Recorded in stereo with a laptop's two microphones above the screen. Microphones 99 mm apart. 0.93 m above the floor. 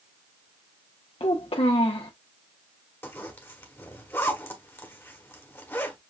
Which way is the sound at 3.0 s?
25° left (ahead or behind).